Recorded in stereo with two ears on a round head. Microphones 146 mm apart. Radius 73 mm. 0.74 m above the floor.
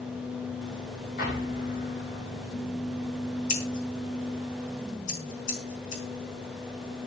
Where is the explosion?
60° left (ahead or behind), 5.5 m.